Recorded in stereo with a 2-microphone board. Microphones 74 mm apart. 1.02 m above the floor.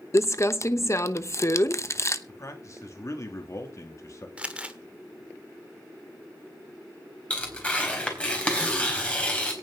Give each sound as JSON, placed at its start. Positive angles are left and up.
{"t": 0.1, "sound": "crumpling", "side_deg": 40, "distance_m": 0.9}
{"t": 2.3, "sound": "a man speaking", "side_deg": 45, "distance_m": 2.5}
{"t": 4.4, "sound": "crumpling", "side_deg": -15, "distance_m": 1.3}
{"t": 7.3, "sound": "tearing paper", "side_deg": 15, "distance_m": 4.0}